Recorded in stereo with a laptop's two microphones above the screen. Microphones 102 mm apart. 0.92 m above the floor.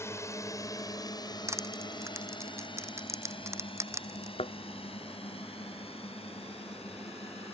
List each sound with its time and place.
0.0 s a drone: 25° left (ahead or behind); by 7.5 s 70° left (ahead or behind)
1.5 s crushing: 25° right (ahead or behind)
4.4 s a thud: 75° left (ahead or behind)